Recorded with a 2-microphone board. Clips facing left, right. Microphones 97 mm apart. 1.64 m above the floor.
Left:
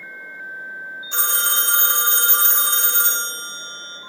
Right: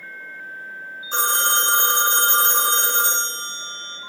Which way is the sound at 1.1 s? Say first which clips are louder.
Right 4 dB; 45° right (ahead or behind).